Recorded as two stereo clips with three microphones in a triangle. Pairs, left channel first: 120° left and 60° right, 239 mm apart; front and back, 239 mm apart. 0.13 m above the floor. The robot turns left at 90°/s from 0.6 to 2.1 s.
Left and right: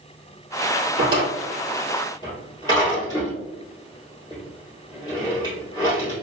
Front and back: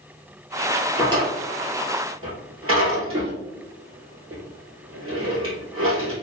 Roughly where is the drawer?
Right.